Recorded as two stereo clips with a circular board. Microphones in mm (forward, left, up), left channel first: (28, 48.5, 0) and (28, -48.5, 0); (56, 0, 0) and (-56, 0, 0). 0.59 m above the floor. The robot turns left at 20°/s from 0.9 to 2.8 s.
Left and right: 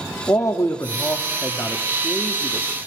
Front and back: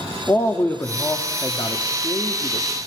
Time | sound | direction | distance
0.3 | a man speaking | 55° left | 1.1 m